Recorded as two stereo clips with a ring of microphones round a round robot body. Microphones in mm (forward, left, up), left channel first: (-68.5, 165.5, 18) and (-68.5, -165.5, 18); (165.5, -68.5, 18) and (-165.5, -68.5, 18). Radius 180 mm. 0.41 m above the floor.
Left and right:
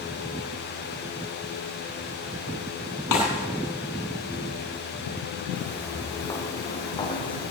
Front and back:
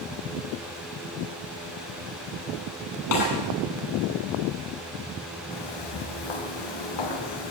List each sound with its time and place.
3.1 s a snare drum: 50° left, 9 m
5.5 s footsteps: 5° left, 6 m; by 7.5 s 15° left, 6 m